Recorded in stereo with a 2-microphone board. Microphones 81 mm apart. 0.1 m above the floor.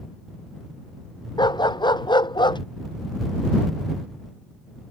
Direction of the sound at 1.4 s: 65° left (ahead or behind).